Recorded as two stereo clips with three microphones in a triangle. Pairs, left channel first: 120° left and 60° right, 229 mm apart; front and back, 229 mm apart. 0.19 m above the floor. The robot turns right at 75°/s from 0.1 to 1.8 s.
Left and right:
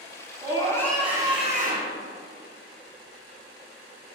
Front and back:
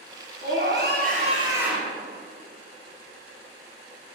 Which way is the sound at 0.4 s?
170° left.